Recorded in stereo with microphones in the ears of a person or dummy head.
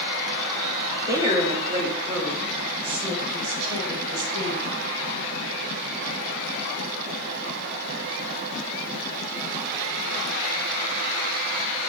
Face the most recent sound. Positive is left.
turn(degrees=-40)  # may be behind; listen again after turning